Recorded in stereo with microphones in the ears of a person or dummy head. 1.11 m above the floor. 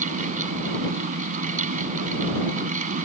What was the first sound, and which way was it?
A fan, 40° right (ahead or behind).